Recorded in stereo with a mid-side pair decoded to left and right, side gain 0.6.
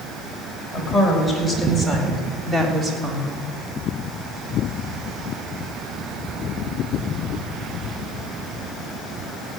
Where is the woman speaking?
Straight ahead, 6 m; by 3.5 s 35° right, 2.5 m.